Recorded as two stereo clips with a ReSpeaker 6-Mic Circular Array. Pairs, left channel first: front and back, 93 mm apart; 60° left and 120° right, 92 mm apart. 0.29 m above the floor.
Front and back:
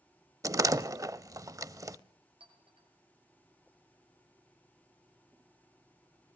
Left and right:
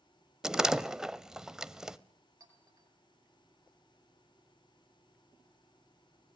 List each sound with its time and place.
0.4 s a door slam: 160° left, 0.7 m
2.4 s a clink: 170° right, 4.5 m